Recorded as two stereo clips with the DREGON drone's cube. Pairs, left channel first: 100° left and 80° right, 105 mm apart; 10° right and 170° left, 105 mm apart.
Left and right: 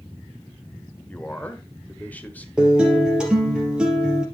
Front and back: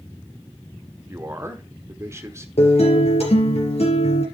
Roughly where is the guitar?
Ahead.